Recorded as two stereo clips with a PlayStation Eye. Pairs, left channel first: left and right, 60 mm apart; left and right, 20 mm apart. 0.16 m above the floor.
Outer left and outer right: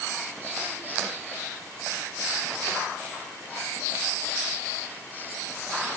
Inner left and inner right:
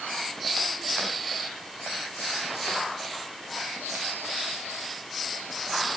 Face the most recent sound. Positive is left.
No sound to turn to.